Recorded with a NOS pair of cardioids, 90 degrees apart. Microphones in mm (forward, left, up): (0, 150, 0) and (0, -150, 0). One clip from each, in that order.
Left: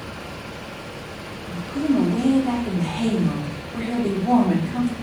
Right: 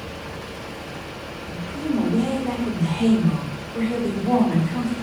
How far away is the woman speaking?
About 2.0 m.